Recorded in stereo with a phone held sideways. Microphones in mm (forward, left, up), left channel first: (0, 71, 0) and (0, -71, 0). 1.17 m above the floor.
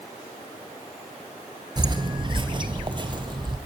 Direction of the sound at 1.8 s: 30° right (ahead or behind).